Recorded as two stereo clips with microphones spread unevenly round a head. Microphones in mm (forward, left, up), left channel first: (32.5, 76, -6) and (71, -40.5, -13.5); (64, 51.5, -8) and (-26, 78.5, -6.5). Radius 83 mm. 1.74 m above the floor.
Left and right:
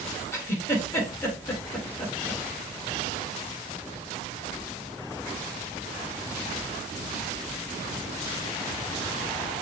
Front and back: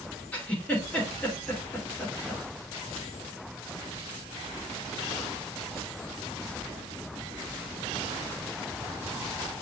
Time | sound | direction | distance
0.3 | a giggle | 55° left | 1.6 m